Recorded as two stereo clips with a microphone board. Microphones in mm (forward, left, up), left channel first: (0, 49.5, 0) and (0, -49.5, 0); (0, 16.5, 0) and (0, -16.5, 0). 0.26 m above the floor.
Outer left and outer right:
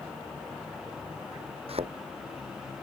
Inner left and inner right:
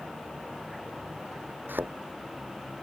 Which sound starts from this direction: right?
A thud, at 1.7 s.